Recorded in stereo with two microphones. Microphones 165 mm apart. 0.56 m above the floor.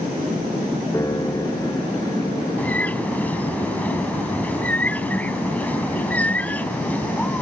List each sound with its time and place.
0.9 s a piano: 20° left (ahead or behind)
2.6 s a bird: 10° left (ahead or behind)